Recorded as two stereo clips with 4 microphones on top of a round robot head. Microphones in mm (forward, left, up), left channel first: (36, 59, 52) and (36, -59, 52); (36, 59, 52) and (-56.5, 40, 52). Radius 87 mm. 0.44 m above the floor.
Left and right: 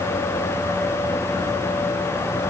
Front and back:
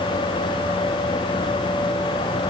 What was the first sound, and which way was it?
Only background noise.